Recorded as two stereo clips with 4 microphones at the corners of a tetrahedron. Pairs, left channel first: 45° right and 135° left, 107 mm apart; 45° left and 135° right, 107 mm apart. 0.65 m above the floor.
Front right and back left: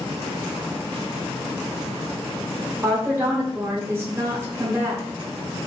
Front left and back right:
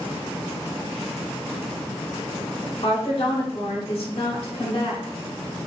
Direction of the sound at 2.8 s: 70° left.